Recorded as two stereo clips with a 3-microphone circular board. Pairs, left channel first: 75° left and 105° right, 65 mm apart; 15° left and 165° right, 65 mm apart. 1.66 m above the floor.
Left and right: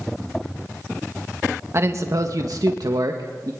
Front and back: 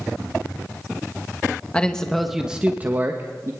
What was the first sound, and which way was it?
A man speaking, 60° right.